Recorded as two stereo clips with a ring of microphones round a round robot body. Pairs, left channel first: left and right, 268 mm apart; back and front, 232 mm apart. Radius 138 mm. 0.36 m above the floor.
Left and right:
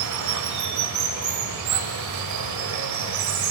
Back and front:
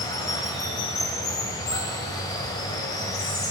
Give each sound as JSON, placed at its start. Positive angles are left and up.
{"t": 0.0, "sound": "running water", "azimuth_deg": -105, "distance_m": 0.8}